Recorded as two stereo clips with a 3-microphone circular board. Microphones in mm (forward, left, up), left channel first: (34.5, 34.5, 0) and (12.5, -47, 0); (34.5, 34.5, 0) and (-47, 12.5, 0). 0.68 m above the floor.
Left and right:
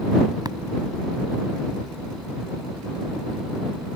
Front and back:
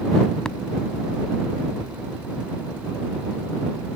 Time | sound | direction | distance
0.5 | tapping | 70° right | ?